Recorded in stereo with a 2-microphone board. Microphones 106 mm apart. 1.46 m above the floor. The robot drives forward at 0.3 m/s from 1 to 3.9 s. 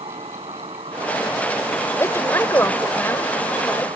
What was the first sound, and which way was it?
An insect, 80° right.